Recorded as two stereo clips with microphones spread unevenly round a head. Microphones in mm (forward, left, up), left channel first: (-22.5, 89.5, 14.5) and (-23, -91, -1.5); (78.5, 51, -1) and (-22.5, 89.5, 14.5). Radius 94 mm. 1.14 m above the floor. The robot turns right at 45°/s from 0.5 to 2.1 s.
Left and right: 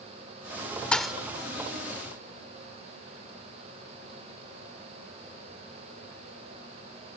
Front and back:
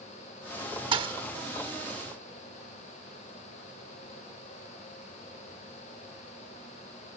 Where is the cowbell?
I don't hear a cowbell.